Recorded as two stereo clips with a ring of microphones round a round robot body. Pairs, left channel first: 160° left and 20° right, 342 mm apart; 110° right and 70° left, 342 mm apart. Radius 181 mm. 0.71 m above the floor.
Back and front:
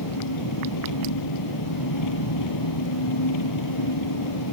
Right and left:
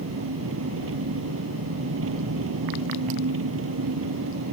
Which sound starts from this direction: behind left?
An engine running, at 0.0 s.